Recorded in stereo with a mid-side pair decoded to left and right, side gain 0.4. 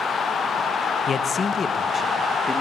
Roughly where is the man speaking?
Ahead left.